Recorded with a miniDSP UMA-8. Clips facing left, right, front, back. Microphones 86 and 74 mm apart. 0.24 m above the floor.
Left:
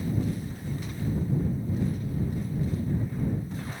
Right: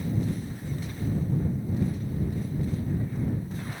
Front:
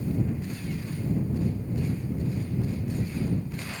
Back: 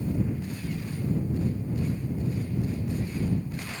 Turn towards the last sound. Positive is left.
No sound to turn to.